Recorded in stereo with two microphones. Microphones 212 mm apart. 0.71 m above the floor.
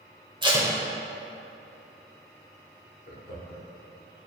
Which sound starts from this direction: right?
Tape being pulled, at 0.4 s.